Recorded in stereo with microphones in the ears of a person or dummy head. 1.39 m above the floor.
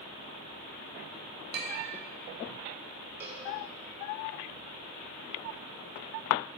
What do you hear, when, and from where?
1.5 s a clink: 55° right (ahead or behind), 1.4 m
3.2 s a cowbell: 40° right (ahead or behind), 1.1 m